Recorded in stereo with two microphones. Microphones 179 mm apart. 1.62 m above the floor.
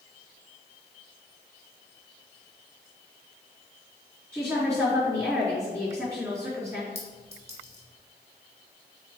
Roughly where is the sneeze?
I don't hear a sneeze.